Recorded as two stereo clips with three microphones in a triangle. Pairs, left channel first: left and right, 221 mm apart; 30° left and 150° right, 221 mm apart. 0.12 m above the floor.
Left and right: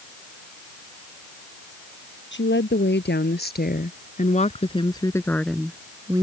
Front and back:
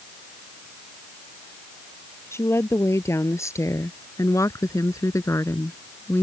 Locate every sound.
2.3 s a woman speaking: 105° left; by 6.2 s 40° right